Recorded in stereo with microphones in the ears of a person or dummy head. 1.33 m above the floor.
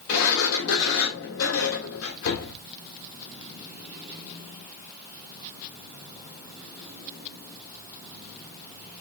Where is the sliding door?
75° left (ahead or behind), 2 m.